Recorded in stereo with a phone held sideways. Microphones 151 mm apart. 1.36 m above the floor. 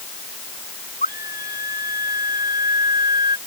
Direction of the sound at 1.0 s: 90° left.